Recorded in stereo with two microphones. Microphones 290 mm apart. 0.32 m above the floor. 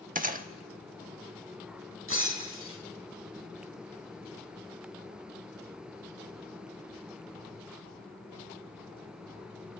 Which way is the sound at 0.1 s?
30° right (ahead or behind).